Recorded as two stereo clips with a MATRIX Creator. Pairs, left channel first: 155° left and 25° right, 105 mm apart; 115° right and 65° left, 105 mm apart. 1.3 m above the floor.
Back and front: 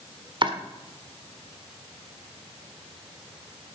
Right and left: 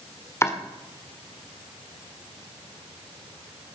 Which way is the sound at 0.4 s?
50° right.